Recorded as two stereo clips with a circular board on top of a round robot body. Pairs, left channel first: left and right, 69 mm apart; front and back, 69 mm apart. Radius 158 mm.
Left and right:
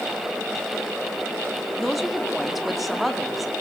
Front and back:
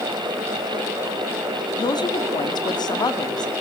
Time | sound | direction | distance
1.8 | a woman speaking | straight ahead | 2 m